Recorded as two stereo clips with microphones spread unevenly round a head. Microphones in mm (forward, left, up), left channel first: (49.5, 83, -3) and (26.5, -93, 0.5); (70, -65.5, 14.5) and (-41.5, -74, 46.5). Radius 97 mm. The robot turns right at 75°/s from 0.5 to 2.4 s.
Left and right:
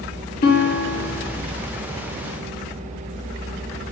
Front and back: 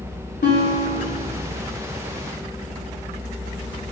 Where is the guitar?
55° left, 0.8 m; by 1.4 s 120° left, 0.8 m.